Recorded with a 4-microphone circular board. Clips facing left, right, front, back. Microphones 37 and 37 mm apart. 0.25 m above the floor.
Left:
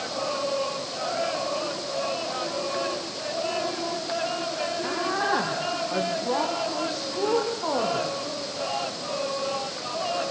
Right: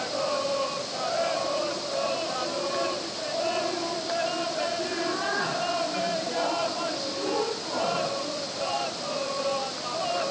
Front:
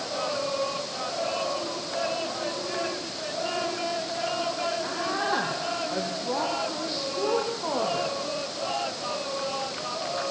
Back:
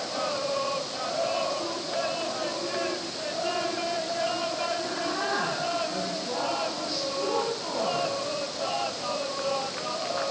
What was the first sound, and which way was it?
A woman speaking, 65° left.